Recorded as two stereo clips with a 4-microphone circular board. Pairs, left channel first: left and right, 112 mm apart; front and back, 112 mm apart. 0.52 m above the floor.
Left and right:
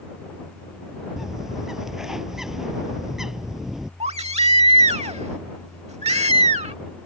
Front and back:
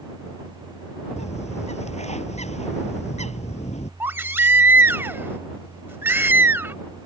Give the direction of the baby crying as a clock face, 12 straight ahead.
4 o'clock.